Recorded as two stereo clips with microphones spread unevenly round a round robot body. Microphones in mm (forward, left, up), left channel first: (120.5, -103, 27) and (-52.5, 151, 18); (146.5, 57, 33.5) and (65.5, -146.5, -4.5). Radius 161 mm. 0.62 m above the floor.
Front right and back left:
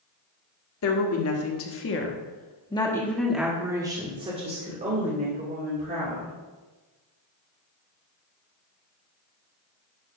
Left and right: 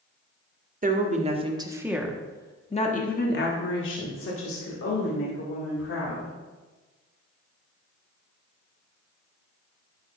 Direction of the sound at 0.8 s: 80° right.